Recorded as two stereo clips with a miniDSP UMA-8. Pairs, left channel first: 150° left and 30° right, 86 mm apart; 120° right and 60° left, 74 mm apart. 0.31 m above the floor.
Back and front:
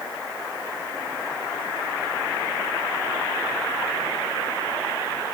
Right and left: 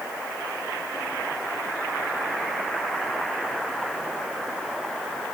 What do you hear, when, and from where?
Only background noise.